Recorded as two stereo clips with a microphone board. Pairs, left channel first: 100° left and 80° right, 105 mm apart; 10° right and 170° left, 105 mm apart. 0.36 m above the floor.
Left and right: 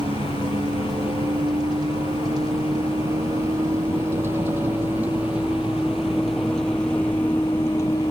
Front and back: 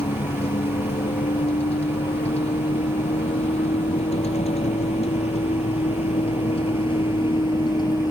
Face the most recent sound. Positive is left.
turn(degrees=40)